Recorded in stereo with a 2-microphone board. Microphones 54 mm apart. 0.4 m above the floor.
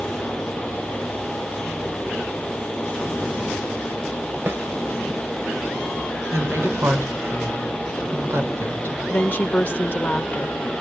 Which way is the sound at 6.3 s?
50° right (ahead or behind).